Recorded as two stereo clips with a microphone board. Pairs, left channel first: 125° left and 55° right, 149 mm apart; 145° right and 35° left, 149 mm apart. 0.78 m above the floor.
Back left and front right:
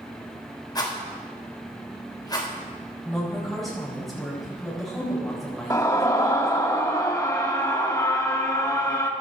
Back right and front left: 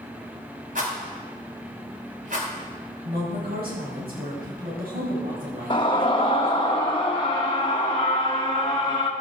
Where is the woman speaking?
35° left, 5 m.